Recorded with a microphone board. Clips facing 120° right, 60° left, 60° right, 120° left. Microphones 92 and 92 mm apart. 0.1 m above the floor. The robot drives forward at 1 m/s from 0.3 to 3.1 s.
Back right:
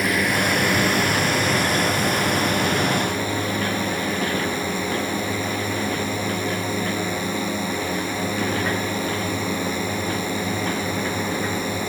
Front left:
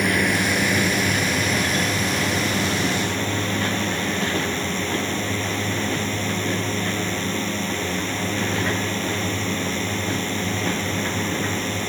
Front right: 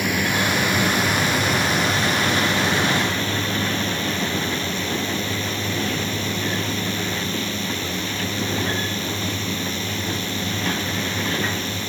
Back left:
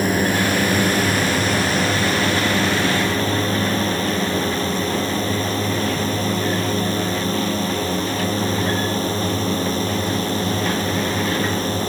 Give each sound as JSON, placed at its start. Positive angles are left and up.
{"t": 0.0, "sound": "a drone", "azimuth_deg": 155}